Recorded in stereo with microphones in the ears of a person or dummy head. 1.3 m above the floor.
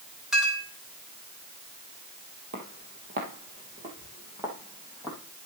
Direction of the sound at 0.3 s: 5° right (ahead or behind).